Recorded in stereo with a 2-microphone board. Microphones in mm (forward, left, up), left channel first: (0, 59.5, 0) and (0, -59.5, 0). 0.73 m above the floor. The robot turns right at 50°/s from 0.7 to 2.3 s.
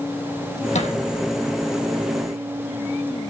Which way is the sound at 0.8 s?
75° left (ahead or behind).